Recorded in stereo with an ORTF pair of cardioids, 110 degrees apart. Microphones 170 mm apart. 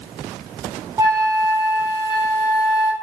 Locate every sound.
1.0 s a flute: 15° right, 1.1 m